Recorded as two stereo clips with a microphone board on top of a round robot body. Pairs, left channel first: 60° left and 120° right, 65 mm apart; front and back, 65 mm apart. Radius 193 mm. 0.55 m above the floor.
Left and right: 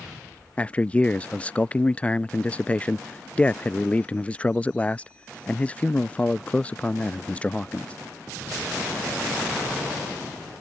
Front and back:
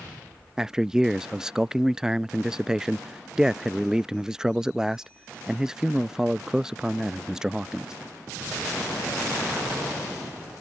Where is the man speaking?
110° left.